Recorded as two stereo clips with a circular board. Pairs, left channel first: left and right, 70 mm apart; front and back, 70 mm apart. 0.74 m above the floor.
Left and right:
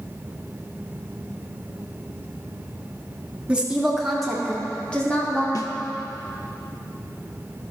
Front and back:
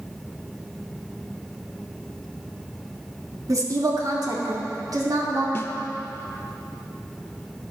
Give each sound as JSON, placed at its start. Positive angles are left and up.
{"t": 3.5, "sound": "a woman speaking", "azimuth_deg": -160, "distance_m": 1.5}
{"t": 5.5, "sound": "a snare drum", "azimuth_deg": 60, "distance_m": 0.7}